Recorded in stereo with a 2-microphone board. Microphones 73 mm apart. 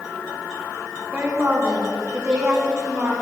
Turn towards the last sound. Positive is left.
turn(degrees=-45)  # may be behind; listen again after turning